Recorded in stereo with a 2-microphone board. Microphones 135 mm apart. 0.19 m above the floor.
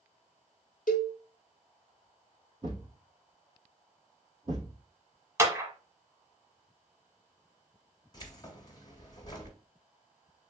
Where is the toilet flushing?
I don't hear a toilet flushing.